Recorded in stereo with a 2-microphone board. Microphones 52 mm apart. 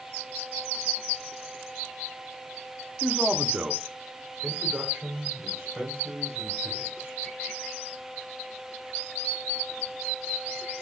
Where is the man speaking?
15° right (ahead or behind), 0.9 m; by 7.2 s 35° right (ahead or behind), 3.5 m.